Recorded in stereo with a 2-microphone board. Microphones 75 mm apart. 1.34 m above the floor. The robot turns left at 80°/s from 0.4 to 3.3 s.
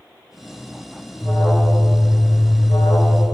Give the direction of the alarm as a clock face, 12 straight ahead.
5 o'clock.